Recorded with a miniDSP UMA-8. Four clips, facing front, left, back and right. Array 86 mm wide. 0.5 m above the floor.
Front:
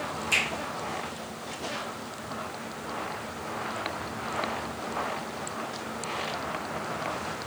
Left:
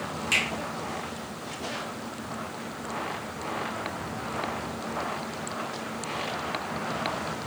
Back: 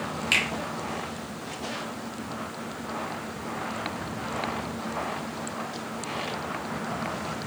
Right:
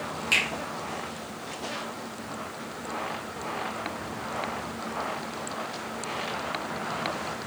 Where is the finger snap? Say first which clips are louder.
Right 1 dB, back 2 dB; 170° right, 1.1 m.